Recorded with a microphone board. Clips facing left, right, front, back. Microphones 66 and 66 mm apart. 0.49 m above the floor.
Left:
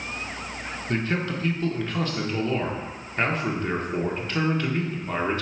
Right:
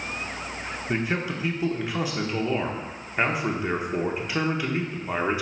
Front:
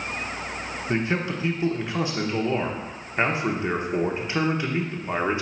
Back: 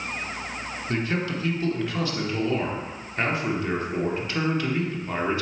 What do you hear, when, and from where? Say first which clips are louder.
0.9 s a man speaking: left 1 dB, front 2 dB; 30° right, 0.9 m